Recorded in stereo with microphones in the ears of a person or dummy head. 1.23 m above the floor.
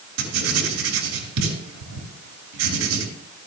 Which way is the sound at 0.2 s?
80° right.